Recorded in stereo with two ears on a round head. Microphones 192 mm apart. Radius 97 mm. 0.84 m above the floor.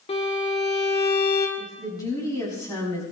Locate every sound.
0.1 s a violin: 25° left (ahead or behind), 2.5 m
1.6 s a woman speaking: 15° left (ahead or behind), 6 m